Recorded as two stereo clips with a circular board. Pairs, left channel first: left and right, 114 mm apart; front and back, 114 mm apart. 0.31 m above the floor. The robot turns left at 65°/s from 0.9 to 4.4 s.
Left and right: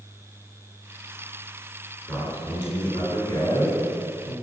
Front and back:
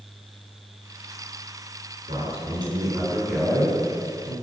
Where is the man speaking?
170° left, 2 m; by 4.3 s 25° left, 2 m.